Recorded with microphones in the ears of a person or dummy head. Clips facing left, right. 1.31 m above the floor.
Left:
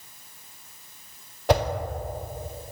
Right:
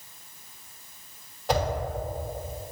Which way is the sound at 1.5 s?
50° left (ahead or behind).